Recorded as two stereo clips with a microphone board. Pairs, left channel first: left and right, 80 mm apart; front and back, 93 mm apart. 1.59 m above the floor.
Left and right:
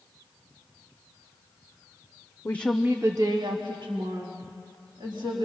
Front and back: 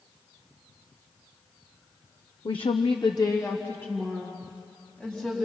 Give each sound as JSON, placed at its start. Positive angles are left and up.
{"t": 2.5, "sound": "a woman speaking", "azimuth_deg": 30, "distance_m": 0.8}